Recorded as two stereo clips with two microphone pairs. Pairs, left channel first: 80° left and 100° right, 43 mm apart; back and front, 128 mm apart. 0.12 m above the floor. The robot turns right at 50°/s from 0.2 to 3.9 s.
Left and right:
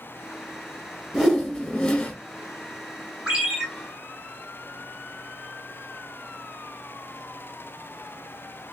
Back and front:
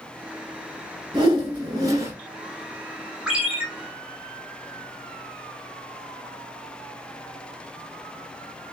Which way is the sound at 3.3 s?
70° right.